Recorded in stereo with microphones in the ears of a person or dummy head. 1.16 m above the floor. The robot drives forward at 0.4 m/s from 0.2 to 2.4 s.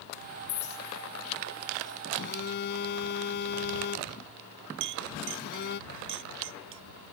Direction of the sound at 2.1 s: 60° left (ahead or behind).